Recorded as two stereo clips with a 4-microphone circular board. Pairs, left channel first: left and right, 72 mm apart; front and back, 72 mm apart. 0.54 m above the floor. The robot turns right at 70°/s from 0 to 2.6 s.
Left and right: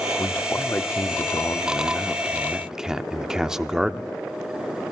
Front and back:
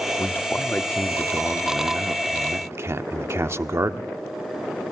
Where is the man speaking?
20° left, 0.9 m; by 4.2 s 170° right, 0.9 m.